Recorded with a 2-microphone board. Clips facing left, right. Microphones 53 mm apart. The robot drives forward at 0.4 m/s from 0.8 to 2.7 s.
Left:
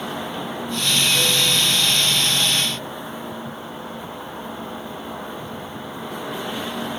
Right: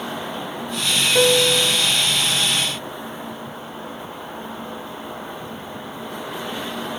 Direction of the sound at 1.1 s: 55° right (ahead or behind).